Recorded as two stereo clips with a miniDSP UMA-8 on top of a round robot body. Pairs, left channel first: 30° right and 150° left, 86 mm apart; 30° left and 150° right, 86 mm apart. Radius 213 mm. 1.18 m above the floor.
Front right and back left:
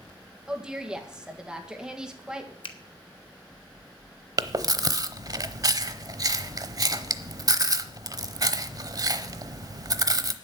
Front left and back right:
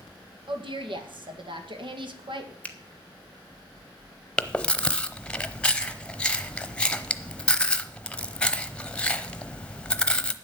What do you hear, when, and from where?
0.5 s a woman speaking: 130° right, 2 m
2.6 s a finger snap: 45° right, 1.3 m
4.4 s chewing: 110° left, 0.9 m